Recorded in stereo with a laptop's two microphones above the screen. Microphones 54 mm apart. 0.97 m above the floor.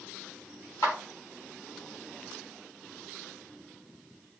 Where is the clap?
55° left (ahead or behind), 3 m.